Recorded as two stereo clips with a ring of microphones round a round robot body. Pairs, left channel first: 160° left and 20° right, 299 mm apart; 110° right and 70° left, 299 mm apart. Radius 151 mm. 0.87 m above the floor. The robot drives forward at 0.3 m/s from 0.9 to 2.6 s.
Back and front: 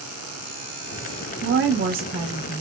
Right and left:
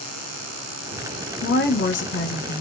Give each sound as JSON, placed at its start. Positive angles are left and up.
{"t": 1.4, "sound": "a woman speaking", "azimuth_deg": -65, "distance_m": 1.0}